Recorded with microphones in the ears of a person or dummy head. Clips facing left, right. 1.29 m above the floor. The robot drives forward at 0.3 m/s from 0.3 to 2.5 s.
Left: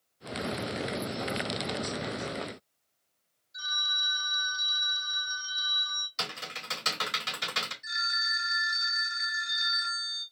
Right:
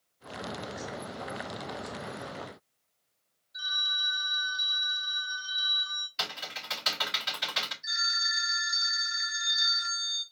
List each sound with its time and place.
3.5 s a phone ringing: 50° left (ahead or behind), 1.3 m
6.2 s typing on a keyboard: 50° left (ahead or behind), 2.5 m
7.8 s a phone ringing: 25° left (ahead or behind), 1.3 m